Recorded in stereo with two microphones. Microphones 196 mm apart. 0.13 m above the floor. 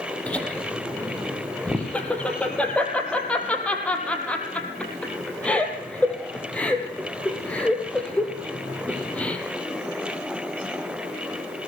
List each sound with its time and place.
0.3 s laughter: 5° left (ahead or behind), 4 m